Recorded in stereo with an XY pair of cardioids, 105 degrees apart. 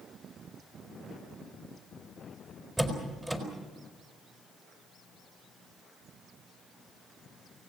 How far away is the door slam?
About 5 m.